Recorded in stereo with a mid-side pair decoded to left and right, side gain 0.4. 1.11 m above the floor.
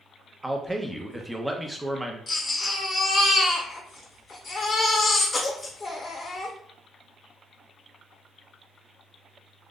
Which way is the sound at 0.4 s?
10° right.